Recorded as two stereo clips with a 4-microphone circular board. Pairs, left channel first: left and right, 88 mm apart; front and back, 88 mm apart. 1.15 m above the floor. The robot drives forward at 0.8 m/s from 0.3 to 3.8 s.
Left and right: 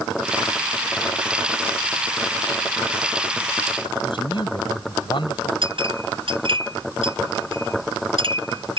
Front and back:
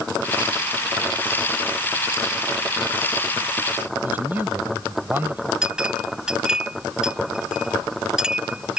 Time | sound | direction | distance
4.0 | a man speaking | 110° left | ?
5.6 | a clink | 100° right | ?